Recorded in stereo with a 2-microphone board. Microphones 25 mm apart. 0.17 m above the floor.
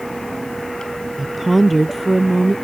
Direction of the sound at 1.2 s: 5° right (ahead or behind).